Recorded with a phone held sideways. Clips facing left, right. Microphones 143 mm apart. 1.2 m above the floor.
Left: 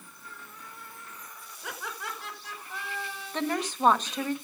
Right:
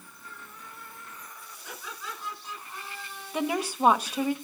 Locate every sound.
1.6 s laughter: 75° left (ahead or behind), 5.5 m; by 3.6 s 85° left, 6 m
3.3 s a woman speaking: 10° right (ahead or behind), 1.4 m